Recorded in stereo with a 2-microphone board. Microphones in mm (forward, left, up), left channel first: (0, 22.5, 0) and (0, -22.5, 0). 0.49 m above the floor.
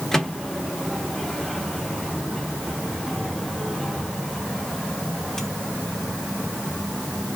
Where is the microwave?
15° left (ahead or behind), 1.0 m.